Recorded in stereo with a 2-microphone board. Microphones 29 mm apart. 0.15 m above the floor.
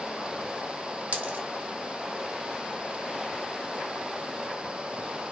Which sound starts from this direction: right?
A dropped coin, at 1.1 s.